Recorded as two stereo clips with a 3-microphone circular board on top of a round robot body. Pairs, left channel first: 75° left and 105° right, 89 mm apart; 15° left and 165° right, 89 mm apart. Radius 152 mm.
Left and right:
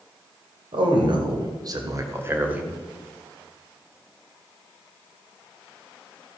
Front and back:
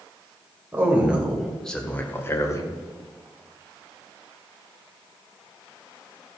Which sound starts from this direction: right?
A man speaking, at 0.7 s.